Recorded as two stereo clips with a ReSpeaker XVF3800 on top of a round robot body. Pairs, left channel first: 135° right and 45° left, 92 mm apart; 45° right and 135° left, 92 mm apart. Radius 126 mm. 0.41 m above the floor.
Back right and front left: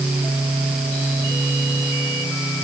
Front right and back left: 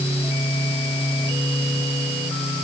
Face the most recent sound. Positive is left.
No sound to turn to.